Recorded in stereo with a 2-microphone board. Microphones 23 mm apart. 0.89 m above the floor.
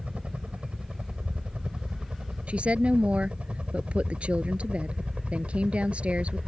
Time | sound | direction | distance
0.0 | a helicopter | 70° right (ahead or behind) | ?
2.5 | a woman speaking | 80° right | ?